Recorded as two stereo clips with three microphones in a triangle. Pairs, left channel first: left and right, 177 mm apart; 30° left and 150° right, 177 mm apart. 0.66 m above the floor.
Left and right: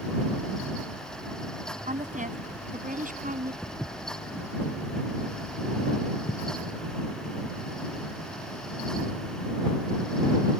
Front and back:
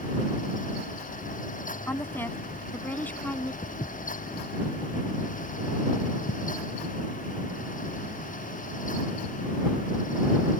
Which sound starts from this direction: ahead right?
A woman speaking, at 1.9 s.